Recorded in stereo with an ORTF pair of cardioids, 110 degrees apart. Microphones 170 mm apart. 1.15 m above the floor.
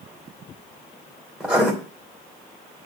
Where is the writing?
5° right, 2.5 m.